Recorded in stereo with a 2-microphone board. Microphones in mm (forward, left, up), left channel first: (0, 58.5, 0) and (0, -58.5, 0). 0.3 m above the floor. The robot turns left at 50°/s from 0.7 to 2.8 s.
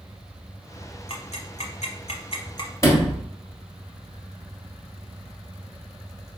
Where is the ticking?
55° left (ahead or behind), 0.9 m; by 2.7 s 35° left (ahead or behind), 0.9 m.